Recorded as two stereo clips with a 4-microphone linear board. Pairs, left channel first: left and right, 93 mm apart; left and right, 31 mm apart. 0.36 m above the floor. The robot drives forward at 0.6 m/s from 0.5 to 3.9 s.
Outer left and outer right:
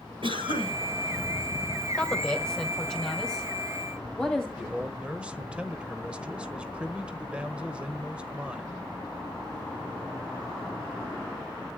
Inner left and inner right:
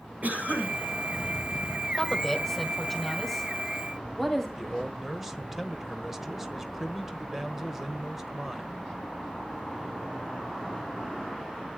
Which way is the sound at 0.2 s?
70° right (ahead or behind).